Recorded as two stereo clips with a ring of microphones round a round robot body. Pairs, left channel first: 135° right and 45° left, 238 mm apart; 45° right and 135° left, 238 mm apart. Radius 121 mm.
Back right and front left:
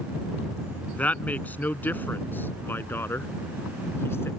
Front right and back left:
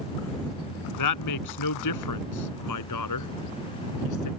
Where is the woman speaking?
50° right; by 4.3 s 55° right.